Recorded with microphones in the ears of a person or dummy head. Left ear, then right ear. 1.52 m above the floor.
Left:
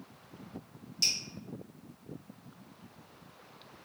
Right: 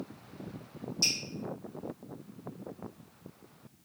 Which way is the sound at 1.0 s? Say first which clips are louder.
Even; 30° left (ahead or behind).